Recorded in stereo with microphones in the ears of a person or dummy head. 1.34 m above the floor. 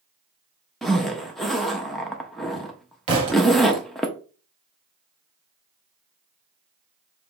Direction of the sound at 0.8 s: Centre (ahead or behind).